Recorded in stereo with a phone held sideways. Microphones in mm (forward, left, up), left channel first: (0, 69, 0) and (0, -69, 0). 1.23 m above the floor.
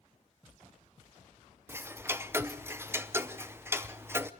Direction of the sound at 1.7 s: 15° right (ahead or behind).